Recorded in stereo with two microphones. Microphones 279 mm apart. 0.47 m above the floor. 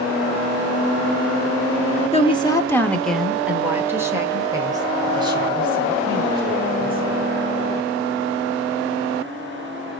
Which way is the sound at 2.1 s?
20° left (ahead or behind).